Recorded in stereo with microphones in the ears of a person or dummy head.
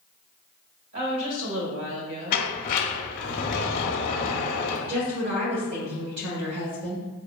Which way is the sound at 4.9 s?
80° right.